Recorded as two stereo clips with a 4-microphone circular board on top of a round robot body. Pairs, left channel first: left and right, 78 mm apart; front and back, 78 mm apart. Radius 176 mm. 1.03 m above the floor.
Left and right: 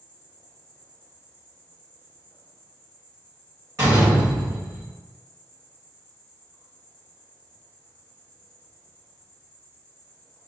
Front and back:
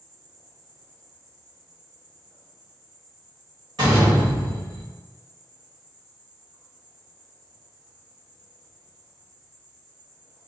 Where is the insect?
145° left, 1.6 m.